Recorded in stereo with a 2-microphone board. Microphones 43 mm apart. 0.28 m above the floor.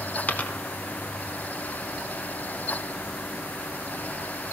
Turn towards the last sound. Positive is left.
turn(degrees=35)  # may be behind; listen again after turning